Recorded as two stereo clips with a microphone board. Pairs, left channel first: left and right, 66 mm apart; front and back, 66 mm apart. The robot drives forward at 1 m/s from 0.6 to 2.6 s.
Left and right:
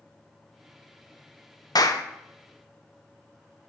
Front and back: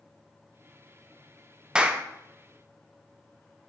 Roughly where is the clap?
Left.